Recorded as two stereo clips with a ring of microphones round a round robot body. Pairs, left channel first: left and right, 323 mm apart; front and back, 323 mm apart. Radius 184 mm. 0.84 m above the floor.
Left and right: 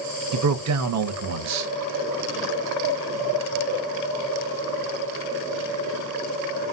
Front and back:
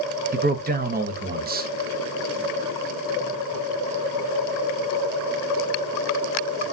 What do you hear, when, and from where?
0.3 s a man speaking: 120° right, 0.7 m